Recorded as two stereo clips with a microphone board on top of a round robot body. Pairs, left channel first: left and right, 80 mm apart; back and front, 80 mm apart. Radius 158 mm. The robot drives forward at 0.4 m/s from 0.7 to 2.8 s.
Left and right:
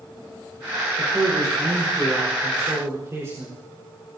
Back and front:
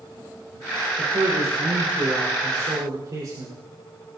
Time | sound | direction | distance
1.0 | a man speaking | 30° right | 5.5 m